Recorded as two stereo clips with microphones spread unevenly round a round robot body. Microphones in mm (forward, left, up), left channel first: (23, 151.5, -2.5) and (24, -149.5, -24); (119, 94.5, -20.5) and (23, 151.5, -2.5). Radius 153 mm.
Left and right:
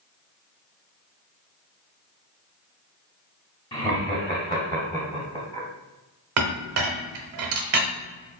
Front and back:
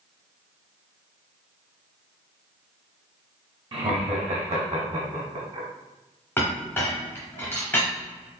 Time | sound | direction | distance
3.7 | laughter | 165° left | 0.9 m
6.4 | a clink | 100° right | 0.7 m